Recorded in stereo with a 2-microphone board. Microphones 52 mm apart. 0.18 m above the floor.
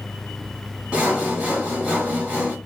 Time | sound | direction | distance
0.9 | sawing | 25° right (ahead or behind) | 1.6 m